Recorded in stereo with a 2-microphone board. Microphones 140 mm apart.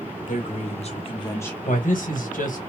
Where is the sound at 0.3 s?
65° left (ahead or behind), 1.0 m; by 1.6 s 10° left (ahead or behind), 0.6 m.